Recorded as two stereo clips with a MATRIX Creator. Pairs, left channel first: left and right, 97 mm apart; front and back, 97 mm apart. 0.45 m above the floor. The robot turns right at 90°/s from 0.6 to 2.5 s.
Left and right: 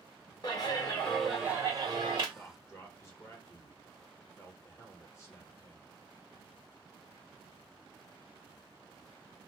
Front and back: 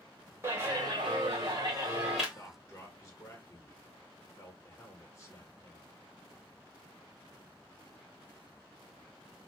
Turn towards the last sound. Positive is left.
turn(degrees=45)